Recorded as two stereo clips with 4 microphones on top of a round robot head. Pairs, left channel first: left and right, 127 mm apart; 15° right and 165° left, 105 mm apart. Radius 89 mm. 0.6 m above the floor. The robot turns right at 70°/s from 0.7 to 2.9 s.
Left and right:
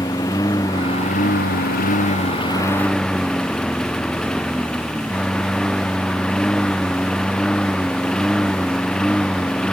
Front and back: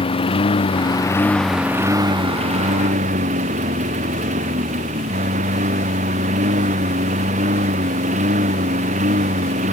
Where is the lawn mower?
20° left; by 9.7 s 175° left.